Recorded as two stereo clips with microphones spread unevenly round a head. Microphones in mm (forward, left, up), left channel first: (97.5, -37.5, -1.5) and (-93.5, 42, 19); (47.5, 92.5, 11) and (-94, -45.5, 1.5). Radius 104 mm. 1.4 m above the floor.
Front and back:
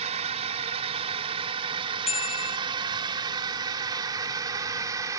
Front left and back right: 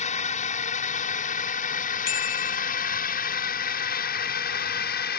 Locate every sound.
0.0 s a drone: 95° left; by 5.2 s 80° left
2.1 s a bicycle bell: 40° left